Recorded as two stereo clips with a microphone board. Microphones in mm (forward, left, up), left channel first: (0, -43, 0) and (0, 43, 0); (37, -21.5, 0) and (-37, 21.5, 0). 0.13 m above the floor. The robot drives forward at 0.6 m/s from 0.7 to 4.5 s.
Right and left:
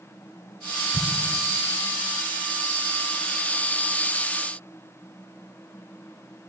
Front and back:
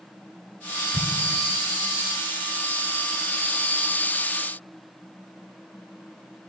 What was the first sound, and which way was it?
An explosion, 95° right.